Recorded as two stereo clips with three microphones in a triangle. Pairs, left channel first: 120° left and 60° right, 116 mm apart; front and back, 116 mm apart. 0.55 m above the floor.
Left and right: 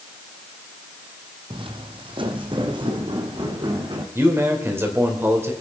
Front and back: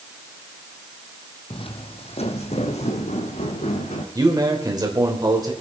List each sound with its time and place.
1.5 s footsteps: 30° right, 1.0 m; by 4.0 s 10° right, 2.5 m
4.2 s a man speaking: 125° right, 2.5 m